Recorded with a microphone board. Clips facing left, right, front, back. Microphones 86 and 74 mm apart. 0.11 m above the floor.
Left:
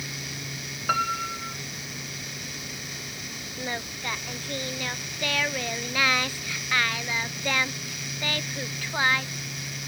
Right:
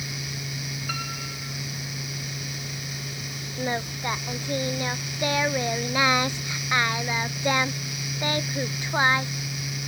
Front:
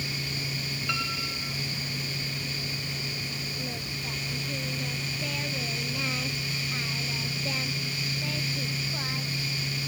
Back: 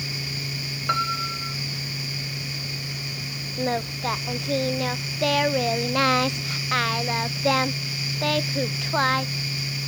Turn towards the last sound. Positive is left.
turn(degrees=-160)